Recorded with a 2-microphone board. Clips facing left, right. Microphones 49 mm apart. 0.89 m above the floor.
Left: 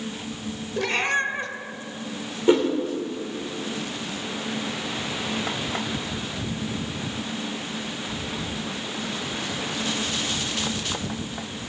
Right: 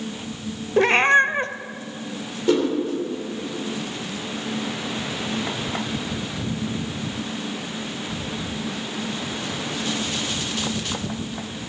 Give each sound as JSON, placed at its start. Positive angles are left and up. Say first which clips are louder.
{"t": 0.8, "sound": "a cat meowing", "louder": "right 8 dB", "side_deg": -40, "distance_m": 0.8}
{"t": 2.5, "sound": "a whoosh", "louder": "left 1 dB", "side_deg": 25, "distance_m": 2.5}